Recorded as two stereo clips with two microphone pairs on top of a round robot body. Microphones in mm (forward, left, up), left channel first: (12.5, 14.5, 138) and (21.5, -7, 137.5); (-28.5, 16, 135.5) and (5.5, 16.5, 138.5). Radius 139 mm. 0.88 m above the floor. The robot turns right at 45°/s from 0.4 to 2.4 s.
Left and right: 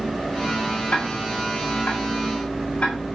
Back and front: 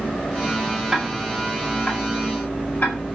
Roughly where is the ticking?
Left.